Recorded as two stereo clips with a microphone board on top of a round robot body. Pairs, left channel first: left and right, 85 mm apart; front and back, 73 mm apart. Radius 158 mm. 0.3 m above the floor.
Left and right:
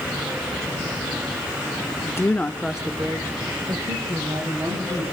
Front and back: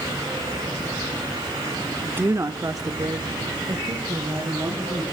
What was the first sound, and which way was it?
A woman speaking, 120° left.